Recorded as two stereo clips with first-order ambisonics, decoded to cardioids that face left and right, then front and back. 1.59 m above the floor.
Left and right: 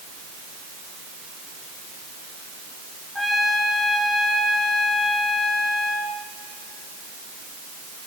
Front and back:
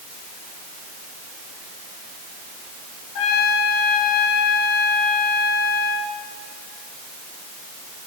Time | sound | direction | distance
3.1 | a trumpet | 5° left | 1.8 m